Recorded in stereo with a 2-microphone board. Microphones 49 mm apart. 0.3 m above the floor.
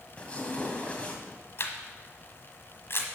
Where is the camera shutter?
55° left (ahead or behind), 1.3 m.